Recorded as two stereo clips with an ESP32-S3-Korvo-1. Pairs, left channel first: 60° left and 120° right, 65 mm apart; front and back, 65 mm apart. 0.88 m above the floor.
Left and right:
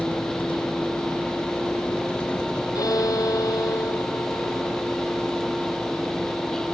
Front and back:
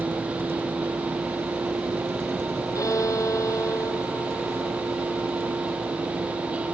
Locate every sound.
0.0 s a vehicle: 125° left; by 6.7 s 145° left
2.8 s a violin: 35° left